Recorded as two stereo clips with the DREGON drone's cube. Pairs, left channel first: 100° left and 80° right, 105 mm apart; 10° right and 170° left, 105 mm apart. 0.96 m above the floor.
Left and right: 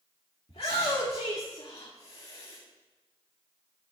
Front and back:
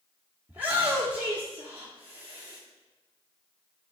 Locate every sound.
0.5 s a shout: 95° left, 1.8 m